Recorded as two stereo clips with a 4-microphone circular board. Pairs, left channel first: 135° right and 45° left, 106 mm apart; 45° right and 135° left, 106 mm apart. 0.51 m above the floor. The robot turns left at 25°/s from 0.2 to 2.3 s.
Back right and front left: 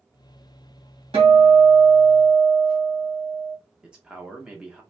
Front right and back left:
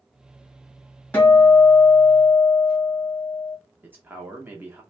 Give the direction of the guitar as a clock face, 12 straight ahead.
11 o'clock.